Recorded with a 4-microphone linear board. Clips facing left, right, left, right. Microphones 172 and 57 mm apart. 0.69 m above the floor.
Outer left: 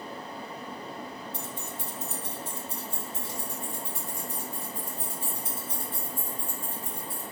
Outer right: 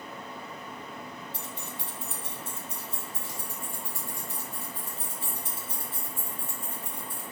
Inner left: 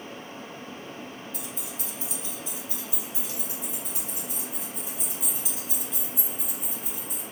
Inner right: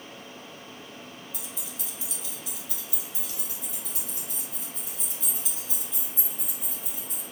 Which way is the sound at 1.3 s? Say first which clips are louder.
Outer left 2 dB, inner left 4 dB; 55° left (ahead or behind).